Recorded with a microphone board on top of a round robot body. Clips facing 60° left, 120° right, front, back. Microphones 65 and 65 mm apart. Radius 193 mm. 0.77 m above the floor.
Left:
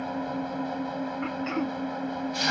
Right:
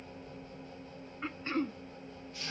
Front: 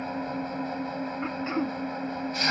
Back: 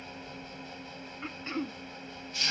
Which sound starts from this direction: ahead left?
An engine running, at 0.0 s.